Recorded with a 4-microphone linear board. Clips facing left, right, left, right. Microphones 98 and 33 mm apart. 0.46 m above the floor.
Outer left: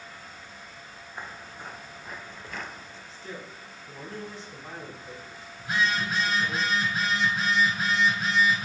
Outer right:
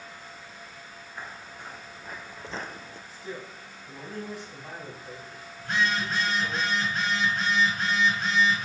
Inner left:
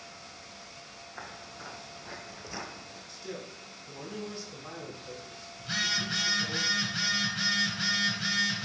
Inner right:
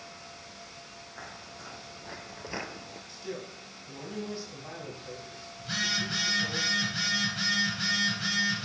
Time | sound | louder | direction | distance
1.2 | footsteps | outer left 1 dB, inner left 1 dB | 20° left (ahead or behind) | 2 m
3.1 | a man speaking | outer right 2 dB, inner right 2 dB | 10° right (ahead or behind) | 3.5 m
5.6 | a phone buzzing | even, even | 5° left (ahead or behind) | 1.5 m